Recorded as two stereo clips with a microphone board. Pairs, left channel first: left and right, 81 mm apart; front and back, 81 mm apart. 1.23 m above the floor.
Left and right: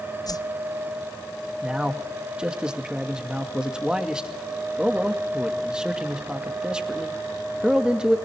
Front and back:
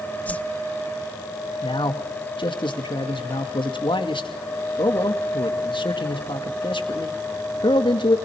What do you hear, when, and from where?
0.3 s a whoosh: 70° left, 0.6 m
1.6 s a man speaking: 10° right, 2 m